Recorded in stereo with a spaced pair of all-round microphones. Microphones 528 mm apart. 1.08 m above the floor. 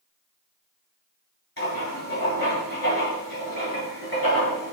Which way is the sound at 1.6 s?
45° left (ahead or behind).